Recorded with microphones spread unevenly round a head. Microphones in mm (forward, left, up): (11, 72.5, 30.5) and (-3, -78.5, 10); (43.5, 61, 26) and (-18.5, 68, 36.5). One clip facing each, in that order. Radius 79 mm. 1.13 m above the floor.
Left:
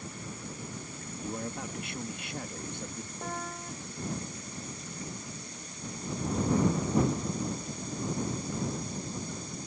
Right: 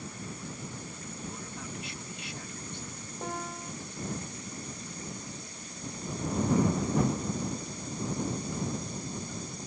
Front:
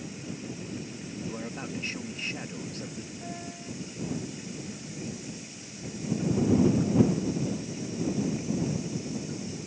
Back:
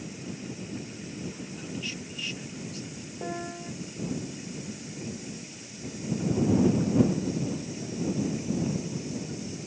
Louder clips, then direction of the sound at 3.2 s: Right 2 dB, back 4 dB; straight behind.